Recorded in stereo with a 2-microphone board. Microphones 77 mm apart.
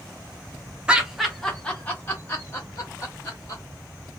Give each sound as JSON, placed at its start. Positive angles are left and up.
{"t": 0.9, "sound": "laughter", "side_deg": -15, "distance_m": 1.0}